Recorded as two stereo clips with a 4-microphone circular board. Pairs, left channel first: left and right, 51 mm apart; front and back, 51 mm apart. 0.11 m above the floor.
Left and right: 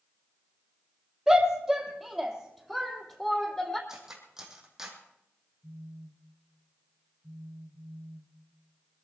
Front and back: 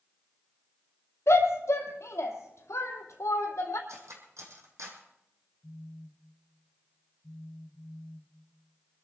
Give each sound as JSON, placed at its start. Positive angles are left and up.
{"t": 1.3, "sound": "a shout", "azimuth_deg": -5, "distance_m": 2.5}
{"t": 3.9, "sound": "cutlery clinking", "azimuth_deg": -170, "distance_m": 3.0}
{"t": 5.6, "sound": "a phone buzzing", "azimuth_deg": -55, "distance_m": 2.5}